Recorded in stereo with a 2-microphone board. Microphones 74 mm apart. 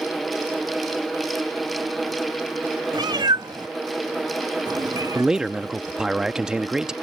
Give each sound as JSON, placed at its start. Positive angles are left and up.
{"t": 2.9, "sound": "a cat meowing", "side_deg": -75}
{"t": 5.2, "sound": "a man speaking", "side_deg": -10}